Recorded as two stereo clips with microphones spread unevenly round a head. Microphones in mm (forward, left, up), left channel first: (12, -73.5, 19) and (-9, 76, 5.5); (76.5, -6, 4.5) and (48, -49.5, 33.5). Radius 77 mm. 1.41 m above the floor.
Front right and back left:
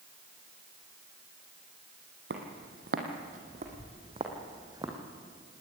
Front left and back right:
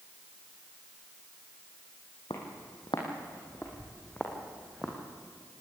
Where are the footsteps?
110° left, 3 m; by 5.0 s 170° left, 3.5 m.